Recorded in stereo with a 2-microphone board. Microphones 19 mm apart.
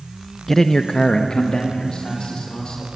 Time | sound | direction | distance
0.5 | a man speaking | 15° left (ahead or behind) | 0.6 m